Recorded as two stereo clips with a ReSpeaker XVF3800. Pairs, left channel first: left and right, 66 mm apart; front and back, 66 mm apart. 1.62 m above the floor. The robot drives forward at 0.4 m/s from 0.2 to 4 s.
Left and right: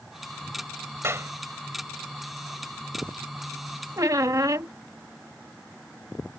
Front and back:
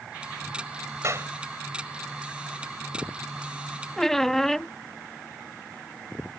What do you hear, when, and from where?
1.0 s a clap: 140° right
4.0 s a squeak: 85° right